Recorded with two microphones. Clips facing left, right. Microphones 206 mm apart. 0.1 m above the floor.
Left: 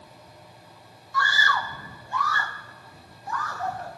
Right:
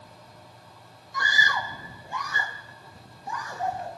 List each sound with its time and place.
1.1 s a scream: 20° right (ahead or behind)